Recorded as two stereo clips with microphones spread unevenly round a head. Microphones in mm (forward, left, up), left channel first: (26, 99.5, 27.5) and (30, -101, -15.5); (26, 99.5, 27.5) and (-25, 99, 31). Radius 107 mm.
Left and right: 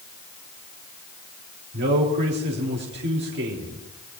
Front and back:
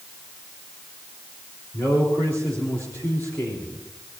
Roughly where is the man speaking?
Ahead right.